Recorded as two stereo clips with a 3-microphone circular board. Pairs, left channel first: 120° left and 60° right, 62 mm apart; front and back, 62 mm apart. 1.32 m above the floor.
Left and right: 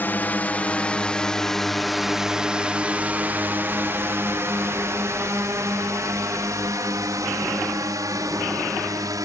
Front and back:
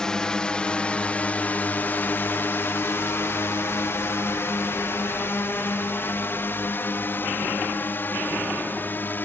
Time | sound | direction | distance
0.0 | a drone | 75° left | ?